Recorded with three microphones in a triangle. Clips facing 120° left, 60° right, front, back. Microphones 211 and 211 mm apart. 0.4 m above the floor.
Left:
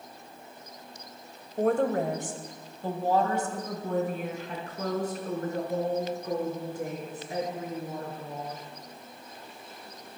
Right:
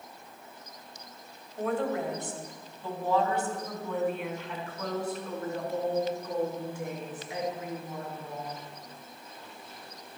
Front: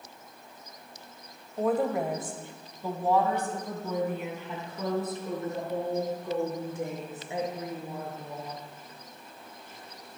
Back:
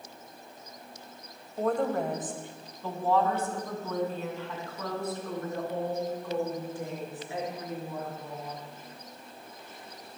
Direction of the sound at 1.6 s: 85° left.